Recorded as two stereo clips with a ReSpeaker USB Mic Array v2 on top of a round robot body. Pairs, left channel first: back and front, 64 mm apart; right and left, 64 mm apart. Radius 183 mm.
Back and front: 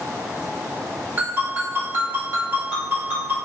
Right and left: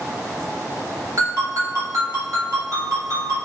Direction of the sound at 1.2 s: 55° left.